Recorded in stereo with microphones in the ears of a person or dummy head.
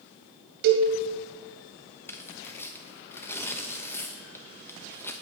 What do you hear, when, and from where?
0.6 s a cowbell: 60° right (ahead or behind), 2 m
2.1 s tearing paper: 15° left (ahead or behind), 1.1 m